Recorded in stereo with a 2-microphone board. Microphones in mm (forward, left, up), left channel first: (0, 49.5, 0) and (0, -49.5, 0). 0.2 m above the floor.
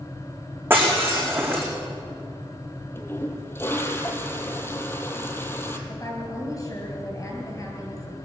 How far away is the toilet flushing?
About 1.4 m.